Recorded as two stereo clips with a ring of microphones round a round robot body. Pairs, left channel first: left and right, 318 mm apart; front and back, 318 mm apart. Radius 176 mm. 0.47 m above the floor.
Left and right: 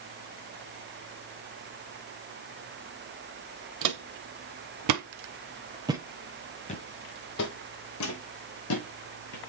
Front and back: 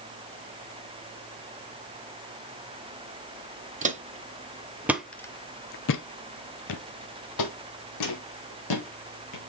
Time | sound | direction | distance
3.8 | footsteps | 115° right | 1.1 m